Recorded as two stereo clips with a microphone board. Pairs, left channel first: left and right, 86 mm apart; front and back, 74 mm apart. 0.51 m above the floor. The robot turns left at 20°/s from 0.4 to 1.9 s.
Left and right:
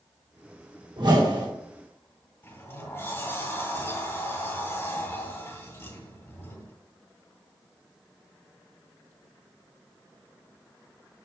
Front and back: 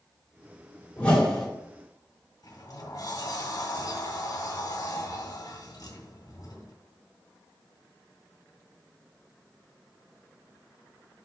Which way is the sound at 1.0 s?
70° right.